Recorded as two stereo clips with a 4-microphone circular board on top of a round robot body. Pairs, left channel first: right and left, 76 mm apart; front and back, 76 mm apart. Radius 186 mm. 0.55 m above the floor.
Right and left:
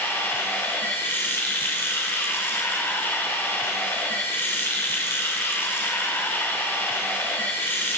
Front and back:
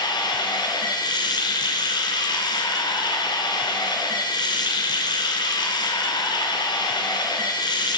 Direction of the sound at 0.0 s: 25° right.